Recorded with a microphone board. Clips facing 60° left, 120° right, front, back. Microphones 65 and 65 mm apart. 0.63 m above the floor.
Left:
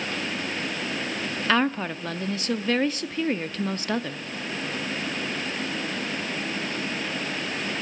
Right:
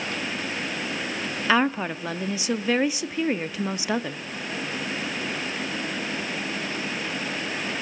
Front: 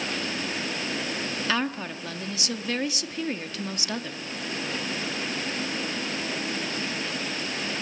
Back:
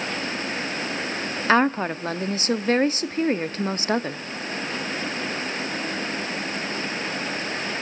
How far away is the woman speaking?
About 0.7 m.